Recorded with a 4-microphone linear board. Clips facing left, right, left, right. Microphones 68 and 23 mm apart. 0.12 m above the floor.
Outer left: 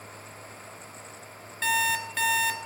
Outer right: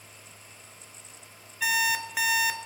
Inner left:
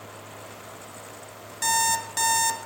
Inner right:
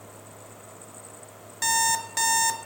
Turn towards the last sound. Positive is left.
turn(degrees=-10)  # may be behind; listen again after turning